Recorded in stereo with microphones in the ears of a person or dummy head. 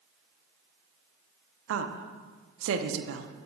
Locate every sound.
1.7 s a woman speaking: 70° right (ahead or behind), 0.5 m